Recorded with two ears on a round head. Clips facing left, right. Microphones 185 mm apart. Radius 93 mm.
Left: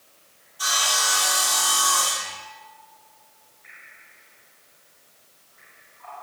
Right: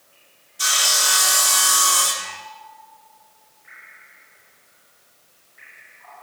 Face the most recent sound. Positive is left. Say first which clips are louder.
# even
turn(degrees=-30)  # may be behind; listen again after turning